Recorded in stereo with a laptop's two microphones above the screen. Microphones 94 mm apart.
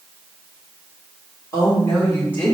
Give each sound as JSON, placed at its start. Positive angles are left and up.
{"t": 1.5, "sound": "a woman speaking", "side_deg": 30, "distance_m": 3.5}